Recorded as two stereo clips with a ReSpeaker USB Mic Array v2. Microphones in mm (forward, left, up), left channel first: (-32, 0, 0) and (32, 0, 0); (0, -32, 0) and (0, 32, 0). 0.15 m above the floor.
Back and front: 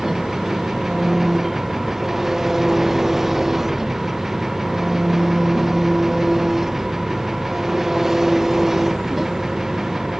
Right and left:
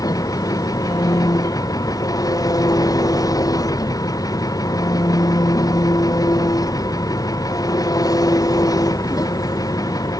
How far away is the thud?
I don't hear a thud.